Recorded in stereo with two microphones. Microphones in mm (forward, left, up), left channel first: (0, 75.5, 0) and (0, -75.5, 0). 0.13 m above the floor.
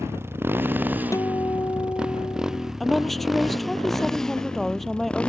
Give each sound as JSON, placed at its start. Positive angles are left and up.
{"t": 0.0, "sound": "a motorcycle", "side_deg": -15}
{"t": 1.1, "sound": "a guitar", "side_deg": 20}
{"t": 2.8, "sound": "a woman speaking", "side_deg": 0}